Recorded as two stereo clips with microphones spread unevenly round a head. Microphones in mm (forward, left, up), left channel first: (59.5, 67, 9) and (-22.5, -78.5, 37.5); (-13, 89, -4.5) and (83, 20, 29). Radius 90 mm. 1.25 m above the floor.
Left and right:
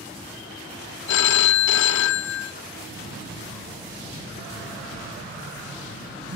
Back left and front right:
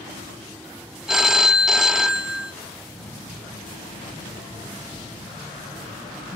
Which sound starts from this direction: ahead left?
A phone ringing, at 1.1 s.